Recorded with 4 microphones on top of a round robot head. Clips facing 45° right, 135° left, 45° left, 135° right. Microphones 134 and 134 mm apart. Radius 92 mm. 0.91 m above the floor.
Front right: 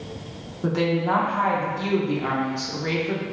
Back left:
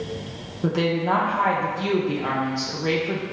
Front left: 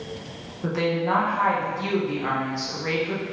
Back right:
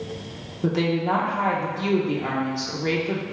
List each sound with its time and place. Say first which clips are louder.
0.6 s a woman speaking: even, back right 2 dB; 155° right, 0.6 m